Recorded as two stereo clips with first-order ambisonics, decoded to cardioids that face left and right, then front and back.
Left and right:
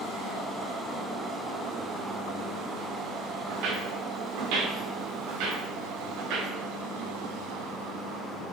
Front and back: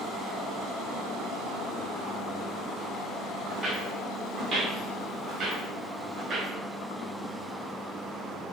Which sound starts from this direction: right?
Footsteps, at 3.5 s.